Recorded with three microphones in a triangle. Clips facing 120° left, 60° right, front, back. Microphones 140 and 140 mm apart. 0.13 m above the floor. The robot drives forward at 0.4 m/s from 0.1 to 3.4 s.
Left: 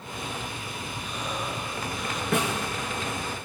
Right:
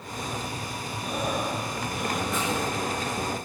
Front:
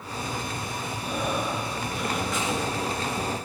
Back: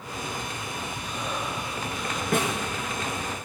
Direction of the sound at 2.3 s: 145° left.